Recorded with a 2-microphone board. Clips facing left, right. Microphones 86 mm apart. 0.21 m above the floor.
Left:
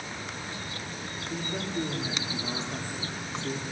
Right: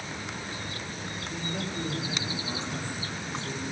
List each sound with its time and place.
1.3 s a man speaking: 45° left (ahead or behind), 6 m